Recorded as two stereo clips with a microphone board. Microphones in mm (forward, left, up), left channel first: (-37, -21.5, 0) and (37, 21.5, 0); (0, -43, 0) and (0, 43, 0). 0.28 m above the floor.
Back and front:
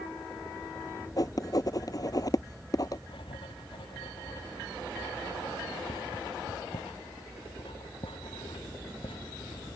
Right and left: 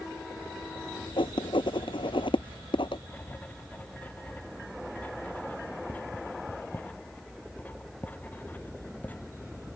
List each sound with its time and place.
1.2 s writing: 105° right
3.1 s writing: 160° right